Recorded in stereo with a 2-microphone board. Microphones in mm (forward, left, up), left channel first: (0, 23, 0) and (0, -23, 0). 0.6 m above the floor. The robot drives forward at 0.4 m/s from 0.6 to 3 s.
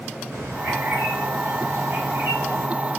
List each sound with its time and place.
0.3 s a bird: 85° right, 2.5 m; by 2.7 s 70° right (ahead or behind), 2.5 m